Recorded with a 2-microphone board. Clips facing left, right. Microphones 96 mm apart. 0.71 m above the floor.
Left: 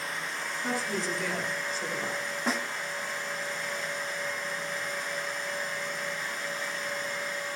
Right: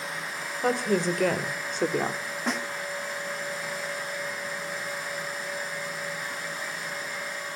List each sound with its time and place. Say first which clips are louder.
0.6 s a woman speaking: right 8 dB; 60° right (ahead or behind), 3.5 m; by 2.2 s 65° right (ahead or behind), 2.0 m
2.5 s a snare drum: right 1 dB; centre (ahead or behind), 0.9 m